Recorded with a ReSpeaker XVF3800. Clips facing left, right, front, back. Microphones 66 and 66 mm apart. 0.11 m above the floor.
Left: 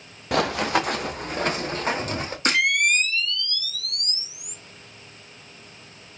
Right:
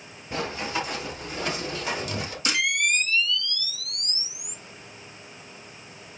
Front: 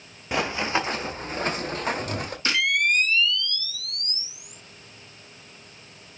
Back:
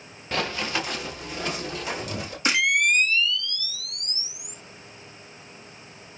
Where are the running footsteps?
75° left, 1.2 m; by 2.4 s 40° left, 2.5 m.